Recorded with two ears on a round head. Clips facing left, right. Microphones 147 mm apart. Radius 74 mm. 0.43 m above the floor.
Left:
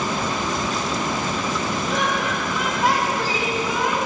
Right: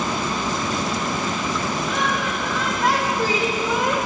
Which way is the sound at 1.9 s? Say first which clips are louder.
Left 1 dB; 35° left (ahead or behind).